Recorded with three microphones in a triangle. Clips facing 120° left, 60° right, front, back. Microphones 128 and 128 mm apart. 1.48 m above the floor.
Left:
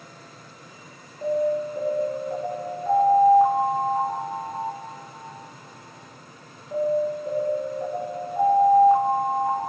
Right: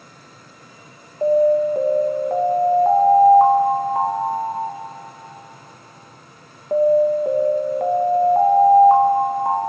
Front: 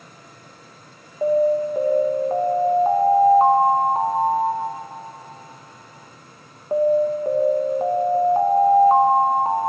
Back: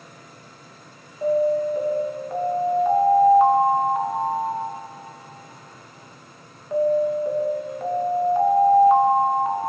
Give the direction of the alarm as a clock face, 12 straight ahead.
2 o'clock.